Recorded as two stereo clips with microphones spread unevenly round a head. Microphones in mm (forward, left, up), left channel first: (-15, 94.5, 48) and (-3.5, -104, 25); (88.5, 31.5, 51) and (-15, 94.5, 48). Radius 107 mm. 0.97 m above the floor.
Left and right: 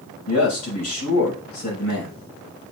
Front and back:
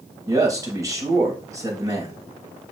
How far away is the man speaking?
About 5.5 m.